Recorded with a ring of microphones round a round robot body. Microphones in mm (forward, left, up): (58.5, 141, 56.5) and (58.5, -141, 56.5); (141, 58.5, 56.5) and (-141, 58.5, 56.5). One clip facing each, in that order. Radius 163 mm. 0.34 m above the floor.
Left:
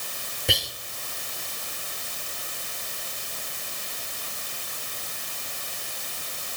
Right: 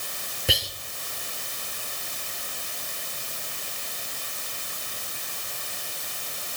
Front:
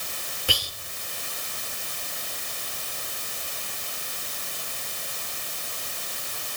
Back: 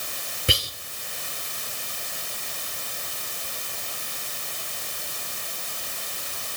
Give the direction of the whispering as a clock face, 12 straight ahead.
6 o'clock.